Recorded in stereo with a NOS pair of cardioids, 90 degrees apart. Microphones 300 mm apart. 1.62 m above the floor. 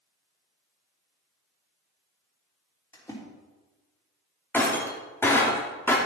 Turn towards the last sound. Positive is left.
turn(degrees=5)